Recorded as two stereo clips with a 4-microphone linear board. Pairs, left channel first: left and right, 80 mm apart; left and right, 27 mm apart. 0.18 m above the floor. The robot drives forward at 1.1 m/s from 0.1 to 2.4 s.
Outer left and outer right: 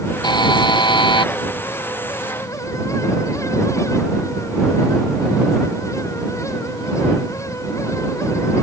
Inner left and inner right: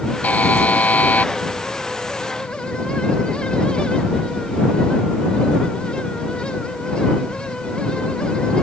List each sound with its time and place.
0.2 s a buzzer: 65° left (ahead or behind); by 1.3 s 75° left (ahead or behind)